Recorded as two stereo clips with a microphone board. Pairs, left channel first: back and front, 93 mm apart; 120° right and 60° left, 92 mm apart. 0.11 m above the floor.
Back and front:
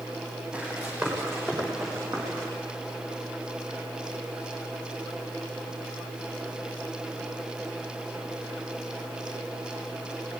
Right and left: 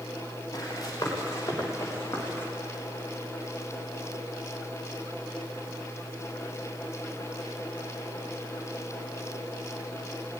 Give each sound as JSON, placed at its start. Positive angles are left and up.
{"t": 0.5, "sound": "running footsteps", "azimuth_deg": -70, "distance_m": 8.5}